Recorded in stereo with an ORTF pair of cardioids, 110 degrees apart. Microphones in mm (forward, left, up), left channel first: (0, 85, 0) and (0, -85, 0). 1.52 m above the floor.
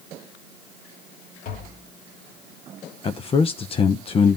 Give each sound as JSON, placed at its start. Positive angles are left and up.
{"t": 1.4, "sound": "tapping", "azimuth_deg": 55, "distance_m": 3.5}
{"t": 3.0, "sound": "a man speaking", "azimuth_deg": 35, "distance_m": 1.0}